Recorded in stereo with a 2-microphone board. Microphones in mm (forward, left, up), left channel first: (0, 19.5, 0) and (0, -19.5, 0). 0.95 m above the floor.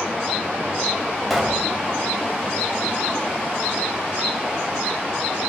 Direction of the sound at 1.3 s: 5° right (ahead or behind).